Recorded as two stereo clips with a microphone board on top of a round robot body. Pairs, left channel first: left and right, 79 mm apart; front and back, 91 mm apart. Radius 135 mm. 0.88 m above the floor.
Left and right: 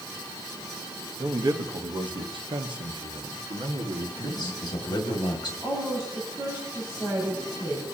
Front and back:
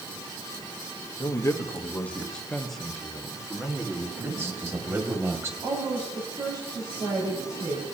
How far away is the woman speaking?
About 5.5 m.